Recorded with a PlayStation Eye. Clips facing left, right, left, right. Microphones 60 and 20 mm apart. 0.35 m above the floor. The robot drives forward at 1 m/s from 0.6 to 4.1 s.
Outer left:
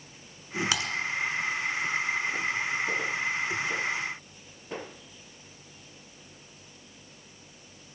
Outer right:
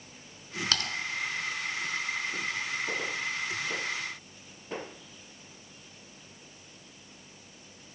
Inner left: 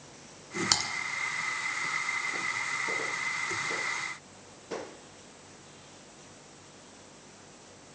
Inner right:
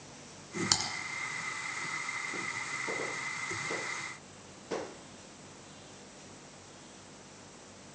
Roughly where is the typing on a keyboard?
Centre.